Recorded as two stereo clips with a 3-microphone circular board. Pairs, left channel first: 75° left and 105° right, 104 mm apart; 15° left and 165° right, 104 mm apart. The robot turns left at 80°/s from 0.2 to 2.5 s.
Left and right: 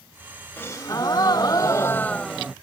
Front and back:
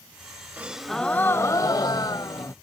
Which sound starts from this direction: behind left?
A gasp, at 0.6 s.